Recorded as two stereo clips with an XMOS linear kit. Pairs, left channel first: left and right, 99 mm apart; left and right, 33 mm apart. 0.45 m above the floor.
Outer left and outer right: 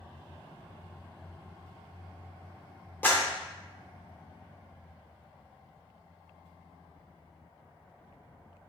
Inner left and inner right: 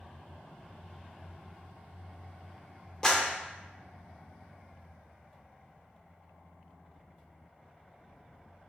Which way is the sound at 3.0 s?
20° left (ahead or behind).